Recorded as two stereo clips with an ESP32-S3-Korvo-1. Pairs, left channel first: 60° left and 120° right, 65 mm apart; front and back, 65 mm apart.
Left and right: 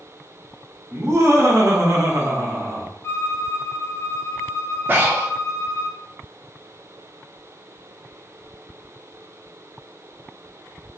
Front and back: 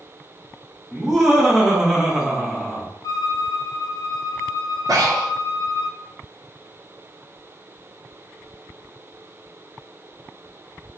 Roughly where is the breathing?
Behind.